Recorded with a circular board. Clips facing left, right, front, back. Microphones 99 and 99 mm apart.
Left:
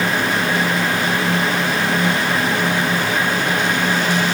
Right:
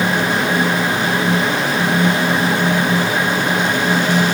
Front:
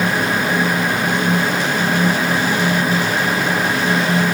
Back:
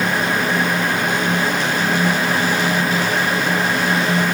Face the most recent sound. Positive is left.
No sound to turn to.